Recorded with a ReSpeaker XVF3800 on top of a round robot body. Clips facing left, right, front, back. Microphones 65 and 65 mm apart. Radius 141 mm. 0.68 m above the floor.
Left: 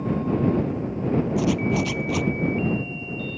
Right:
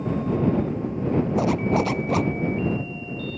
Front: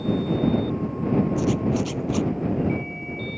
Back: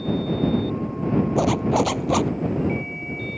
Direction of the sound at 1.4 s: 150° right.